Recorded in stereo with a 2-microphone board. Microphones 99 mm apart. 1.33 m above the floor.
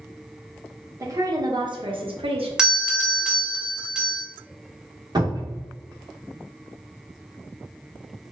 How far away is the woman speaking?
About 1.0 m.